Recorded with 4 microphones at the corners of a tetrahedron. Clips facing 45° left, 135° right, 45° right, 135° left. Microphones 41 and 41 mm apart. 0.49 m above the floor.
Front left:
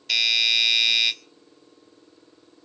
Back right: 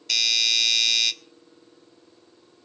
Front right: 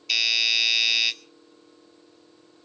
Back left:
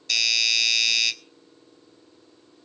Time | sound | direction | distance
0.1 | a doorbell | straight ahead | 1.6 m